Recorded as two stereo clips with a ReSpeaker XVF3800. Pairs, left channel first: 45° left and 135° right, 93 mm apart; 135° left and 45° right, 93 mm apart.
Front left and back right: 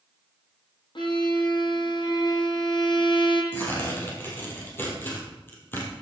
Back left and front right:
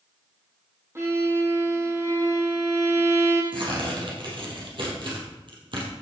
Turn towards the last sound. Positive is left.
turn(degrees=-20)